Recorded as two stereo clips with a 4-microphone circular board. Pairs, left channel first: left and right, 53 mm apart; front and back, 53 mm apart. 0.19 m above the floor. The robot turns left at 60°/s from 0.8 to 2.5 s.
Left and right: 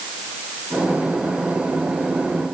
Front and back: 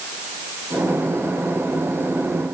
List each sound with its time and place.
Only background noise.